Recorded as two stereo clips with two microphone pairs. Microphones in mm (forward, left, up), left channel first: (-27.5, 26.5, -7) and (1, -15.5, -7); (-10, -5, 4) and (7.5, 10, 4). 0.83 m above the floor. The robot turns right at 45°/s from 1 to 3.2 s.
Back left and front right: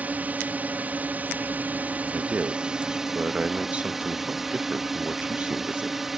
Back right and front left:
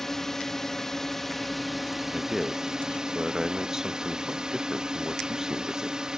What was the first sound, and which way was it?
A drone, 75° right.